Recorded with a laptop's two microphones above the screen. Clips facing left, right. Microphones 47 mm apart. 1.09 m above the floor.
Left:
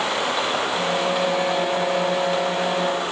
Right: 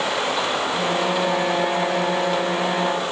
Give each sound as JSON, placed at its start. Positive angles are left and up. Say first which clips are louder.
{"t": 0.7, "sound": "a violin", "louder": "even", "side_deg": -10, "distance_m": 1.3}